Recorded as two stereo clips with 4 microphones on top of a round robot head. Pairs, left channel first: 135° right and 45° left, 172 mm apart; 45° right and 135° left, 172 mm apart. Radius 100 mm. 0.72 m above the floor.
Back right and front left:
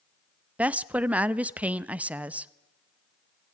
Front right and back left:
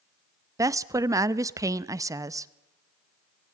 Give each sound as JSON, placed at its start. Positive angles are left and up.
{"t": 0.6, "sound": "a woman speaking", "azimuth_deg": 115, "distance_m": 0.6}